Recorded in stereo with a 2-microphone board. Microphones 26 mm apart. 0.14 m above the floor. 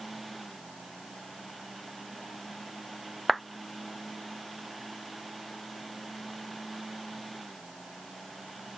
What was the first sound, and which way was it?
A clap, centre (ahead or behind).